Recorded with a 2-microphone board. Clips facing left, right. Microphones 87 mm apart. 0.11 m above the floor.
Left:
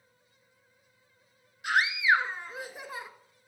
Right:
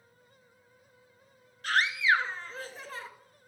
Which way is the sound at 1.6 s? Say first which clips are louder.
Left 1 dB; 15° left (ahead or behind).